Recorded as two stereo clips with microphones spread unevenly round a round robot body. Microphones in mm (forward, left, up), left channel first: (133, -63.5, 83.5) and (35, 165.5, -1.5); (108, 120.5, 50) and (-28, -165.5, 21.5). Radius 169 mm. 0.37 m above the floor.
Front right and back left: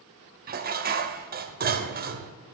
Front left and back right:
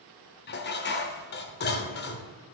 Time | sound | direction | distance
0.5 | dishes clattering | 120° left | 0.8 m